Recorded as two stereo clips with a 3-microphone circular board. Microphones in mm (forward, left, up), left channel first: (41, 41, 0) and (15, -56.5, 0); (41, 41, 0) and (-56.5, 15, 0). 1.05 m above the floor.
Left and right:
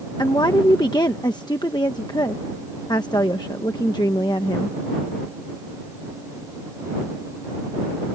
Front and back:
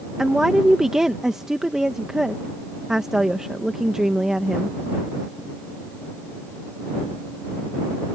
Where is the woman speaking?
110° left.